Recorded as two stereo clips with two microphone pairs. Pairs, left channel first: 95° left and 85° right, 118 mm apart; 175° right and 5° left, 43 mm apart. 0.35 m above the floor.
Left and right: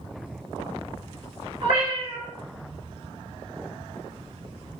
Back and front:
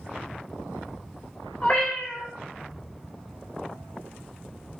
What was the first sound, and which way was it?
A cat meowing, 110° right.